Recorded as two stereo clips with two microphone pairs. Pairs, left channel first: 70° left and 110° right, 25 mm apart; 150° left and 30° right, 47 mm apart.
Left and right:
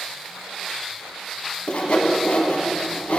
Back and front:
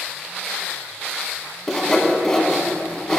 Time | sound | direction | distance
1.7 | sawing | 70° left | 1.2 m